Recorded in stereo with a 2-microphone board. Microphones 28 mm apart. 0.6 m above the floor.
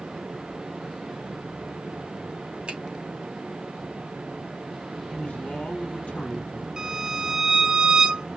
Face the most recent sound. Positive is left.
turn(degrees=-40)  # may be behind; listen again after turning